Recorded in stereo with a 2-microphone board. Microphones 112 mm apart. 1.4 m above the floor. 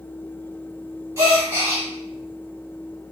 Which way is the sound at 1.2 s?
25° right (ahead or behind).